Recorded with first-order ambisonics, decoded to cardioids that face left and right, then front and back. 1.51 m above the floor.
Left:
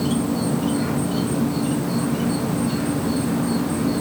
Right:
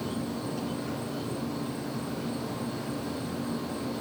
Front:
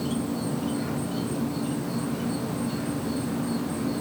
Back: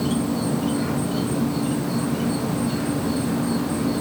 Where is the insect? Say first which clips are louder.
Left 11 dB, back 5 dB; 110° left, 0.9 m.